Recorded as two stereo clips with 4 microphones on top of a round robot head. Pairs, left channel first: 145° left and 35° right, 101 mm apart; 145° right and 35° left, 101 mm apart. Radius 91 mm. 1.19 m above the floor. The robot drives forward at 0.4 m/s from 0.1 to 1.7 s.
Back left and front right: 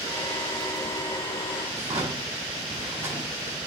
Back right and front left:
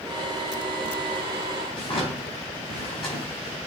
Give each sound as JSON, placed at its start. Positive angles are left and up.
{"t": 1.7, "sound": "a drawer", "azimuth_deg": -105, "distance_m": 4.0}